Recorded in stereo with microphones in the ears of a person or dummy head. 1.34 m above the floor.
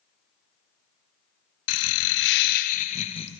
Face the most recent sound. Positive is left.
turn(degrees=30)  # may be behind; listen again after turning